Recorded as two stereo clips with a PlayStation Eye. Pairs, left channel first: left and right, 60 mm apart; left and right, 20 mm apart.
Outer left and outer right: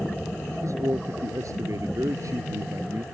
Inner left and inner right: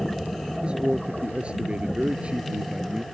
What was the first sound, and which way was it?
A man speaking, 60° right (ahead or behind).